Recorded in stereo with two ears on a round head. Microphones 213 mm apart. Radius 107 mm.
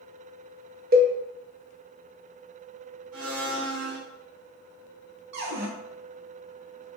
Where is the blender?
65° right (ahead or behind), 2.0 m.